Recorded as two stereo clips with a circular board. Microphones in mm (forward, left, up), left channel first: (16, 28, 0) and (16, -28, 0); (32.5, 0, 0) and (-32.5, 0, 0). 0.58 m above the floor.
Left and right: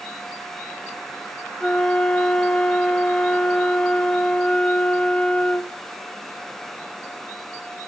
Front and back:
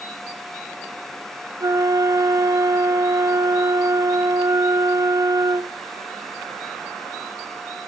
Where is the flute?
165° left, 0.6 m.